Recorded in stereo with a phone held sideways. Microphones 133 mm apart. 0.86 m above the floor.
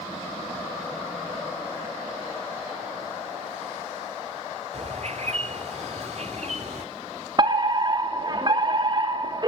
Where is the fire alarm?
35° right (ahead or behind), 3 m.